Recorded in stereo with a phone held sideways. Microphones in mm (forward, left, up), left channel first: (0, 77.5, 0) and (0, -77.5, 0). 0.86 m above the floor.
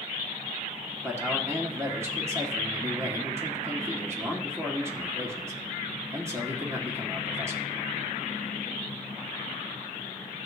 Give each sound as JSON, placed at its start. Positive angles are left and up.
{"t": 1.0, "sound": "a man speaking", "side_deg": -15, "distance_m": 1.9}